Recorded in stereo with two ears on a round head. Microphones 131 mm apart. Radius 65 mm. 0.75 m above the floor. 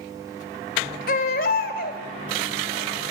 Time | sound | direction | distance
1.1 | a baby crying | 60° left (ahead or behind) | 2.5 m